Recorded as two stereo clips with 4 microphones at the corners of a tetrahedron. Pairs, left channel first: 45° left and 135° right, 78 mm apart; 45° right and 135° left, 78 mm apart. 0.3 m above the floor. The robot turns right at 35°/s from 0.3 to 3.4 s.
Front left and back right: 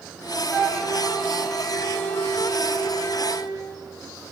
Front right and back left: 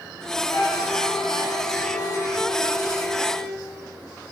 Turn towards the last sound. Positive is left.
turn(degrees=30)